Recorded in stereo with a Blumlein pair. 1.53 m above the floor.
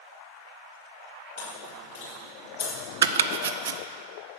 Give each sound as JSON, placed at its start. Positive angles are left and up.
{"t": 1.4, "sound": "chewing", "azimuth_deg": 65, "distance_m": 3.5}
{"t": 3.0, "sound": "chopping", "azimuth_deg": -65, "distance_m": 0.6}